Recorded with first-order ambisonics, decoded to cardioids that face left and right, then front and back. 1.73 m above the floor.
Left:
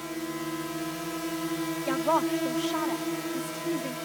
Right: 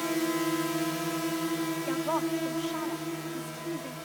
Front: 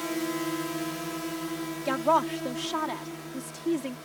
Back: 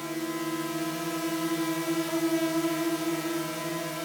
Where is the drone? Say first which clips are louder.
Right 5 dB, front 2 dB; 60° right; by 4.1 s 150° left.